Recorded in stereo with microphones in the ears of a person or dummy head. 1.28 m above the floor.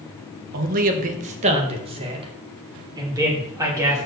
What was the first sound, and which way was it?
A man speaking, 50° right (ahead or behind).